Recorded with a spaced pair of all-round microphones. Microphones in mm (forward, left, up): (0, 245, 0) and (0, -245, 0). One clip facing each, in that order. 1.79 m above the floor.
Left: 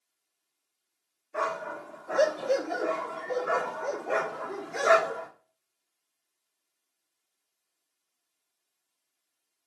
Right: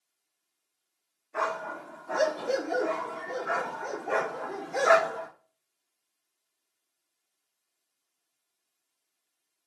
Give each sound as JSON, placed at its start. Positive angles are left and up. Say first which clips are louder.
{"t": 1.3, "sound": "a dog barking", "louder": "left 1 dB", "side_deg": -20, "distance_m": 1.3}